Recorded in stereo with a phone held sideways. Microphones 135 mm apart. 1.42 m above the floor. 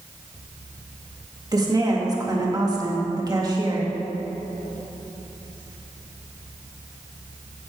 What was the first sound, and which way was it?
A woman speaking, 30° right (ahead or behind).